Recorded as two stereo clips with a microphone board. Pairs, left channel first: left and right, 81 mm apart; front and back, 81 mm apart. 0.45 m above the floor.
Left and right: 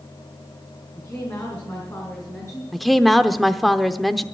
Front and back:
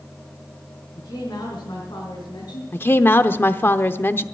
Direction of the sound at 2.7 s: 5° left.